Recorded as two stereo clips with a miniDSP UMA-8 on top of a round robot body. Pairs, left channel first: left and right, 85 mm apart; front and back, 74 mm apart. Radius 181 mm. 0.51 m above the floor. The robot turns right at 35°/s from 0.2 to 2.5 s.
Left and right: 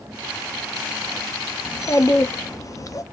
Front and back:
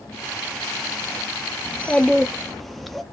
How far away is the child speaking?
About 0.9 m.